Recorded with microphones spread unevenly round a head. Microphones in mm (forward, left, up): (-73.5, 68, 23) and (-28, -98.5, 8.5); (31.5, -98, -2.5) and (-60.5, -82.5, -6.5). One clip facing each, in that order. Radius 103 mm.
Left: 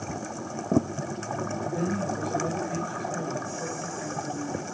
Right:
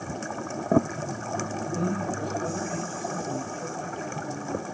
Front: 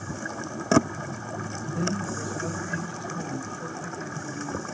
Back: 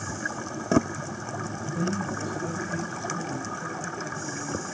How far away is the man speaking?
About 3 m.